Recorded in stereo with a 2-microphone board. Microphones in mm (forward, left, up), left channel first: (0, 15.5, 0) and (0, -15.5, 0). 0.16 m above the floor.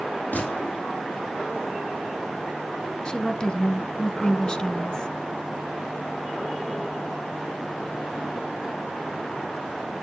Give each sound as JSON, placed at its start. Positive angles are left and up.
{"t": 0.3, "sound": "a gunshot", "side_deg": 70, "distance_m": 4.5}
{"t": 3.0, "sound": "a woman speaking", "side_deg": 30, "distance_m": 1.2}